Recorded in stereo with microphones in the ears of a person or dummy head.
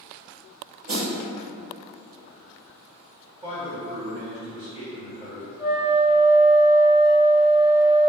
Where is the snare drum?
45° right (ahead or behind), 1.3 m.